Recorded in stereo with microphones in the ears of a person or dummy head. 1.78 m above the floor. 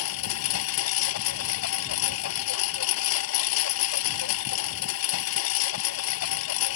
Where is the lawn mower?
75° left (ahead or behind).